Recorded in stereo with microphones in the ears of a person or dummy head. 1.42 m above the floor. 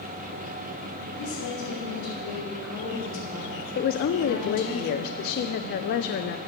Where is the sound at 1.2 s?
65° left (ahead or behind), 5.5 m; by 4.8 s 85° left, 4.5 m.